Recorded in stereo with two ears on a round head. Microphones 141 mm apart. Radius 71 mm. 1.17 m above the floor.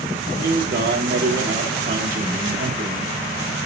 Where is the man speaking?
65° right (ahead or behind), 4 m.